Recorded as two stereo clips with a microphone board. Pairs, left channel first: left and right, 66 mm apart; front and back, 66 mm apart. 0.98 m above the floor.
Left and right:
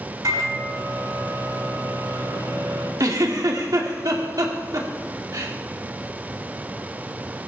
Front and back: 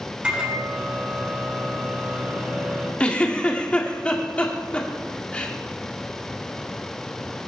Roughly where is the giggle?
Right.